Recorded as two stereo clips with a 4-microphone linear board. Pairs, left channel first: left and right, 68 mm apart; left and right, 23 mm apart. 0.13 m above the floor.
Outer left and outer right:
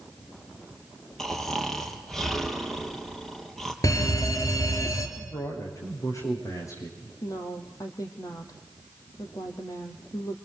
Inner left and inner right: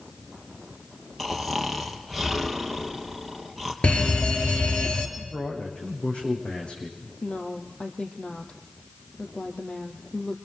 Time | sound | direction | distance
1.2 | snoring | 5° left (ahead or behind) | 3.5 m
3.8 | a fire alarm | 55° left (ahead or behind) | 4 m
5.2 | a man speaking | 50° left (ahead or behind) | 10 m
7.2 | a woman speaking | 55° left (ahead or behind) | 4 m